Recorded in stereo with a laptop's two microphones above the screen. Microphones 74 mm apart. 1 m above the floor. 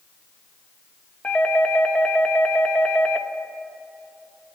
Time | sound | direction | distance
1.2 | a doorbell | 15° left (ahead or behind) | 1.3 m